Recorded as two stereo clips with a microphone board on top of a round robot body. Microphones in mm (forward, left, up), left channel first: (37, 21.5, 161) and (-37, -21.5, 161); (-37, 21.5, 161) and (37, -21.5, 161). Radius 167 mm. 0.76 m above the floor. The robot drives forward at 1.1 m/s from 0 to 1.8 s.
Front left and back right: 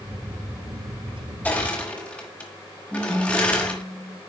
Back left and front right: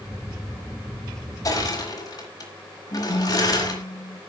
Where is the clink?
No clink in this recording.